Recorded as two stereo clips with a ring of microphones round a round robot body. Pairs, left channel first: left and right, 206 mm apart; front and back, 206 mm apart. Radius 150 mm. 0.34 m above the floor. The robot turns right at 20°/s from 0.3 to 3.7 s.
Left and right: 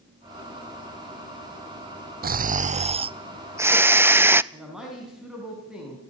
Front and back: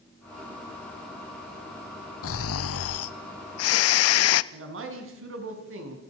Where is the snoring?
40° right, 0.5 m; by 4.4 s 10° right, 0.5 m.